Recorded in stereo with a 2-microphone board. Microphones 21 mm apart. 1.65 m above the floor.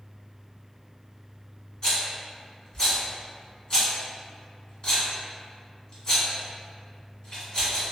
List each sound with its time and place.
1.8 s a rattle: 30° left (ahead or behind), 1.3 m